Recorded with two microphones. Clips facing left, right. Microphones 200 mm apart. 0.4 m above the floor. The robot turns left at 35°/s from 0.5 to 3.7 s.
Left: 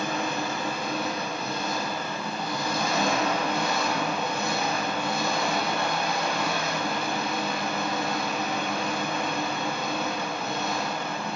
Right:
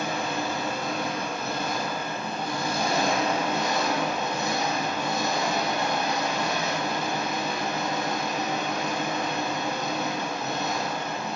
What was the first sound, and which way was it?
An engine running, 40° right.